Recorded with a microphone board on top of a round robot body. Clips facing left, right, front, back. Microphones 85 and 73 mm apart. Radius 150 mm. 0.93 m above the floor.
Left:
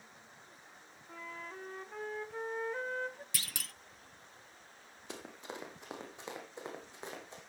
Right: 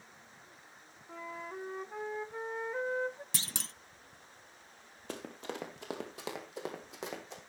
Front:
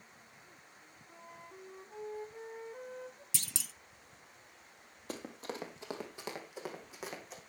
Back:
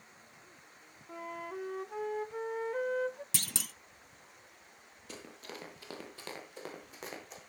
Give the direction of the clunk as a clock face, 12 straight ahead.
5 o'clock.